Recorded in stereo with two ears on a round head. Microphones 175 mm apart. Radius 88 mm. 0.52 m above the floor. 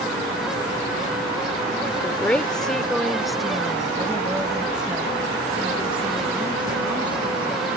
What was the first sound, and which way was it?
A woman speaking, 10° left (ahead or behind).